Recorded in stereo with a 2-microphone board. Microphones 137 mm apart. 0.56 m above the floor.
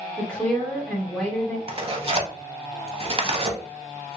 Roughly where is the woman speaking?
Centre.